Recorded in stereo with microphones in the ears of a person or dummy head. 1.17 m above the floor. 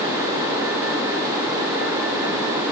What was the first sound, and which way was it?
Only background noise.